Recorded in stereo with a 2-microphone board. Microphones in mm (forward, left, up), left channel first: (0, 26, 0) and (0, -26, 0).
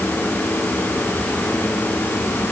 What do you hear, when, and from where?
Only background noise.